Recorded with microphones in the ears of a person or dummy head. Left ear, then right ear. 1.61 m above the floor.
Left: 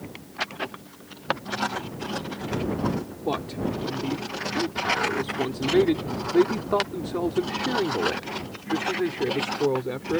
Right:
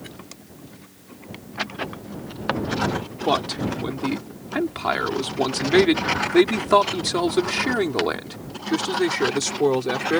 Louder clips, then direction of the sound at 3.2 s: Right 6 dB; 35° right (ahead or behind).